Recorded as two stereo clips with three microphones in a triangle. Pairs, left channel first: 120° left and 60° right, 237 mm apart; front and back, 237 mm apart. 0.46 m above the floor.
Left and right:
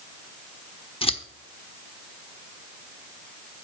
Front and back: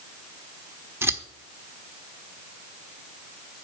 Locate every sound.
1.0 s scissors: 120° left, 1.0 m